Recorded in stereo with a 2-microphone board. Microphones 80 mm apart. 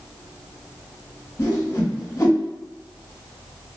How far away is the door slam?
No door slam in this recording.